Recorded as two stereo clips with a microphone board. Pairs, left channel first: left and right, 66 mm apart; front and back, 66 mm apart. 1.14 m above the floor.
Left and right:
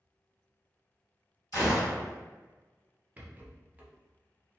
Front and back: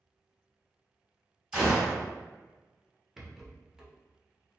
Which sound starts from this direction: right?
A rattle, at 3.2 s.